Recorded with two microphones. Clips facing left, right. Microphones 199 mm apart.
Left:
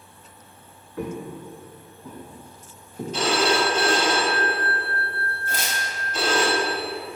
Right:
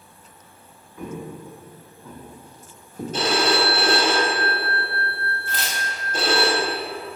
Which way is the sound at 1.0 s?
80° left.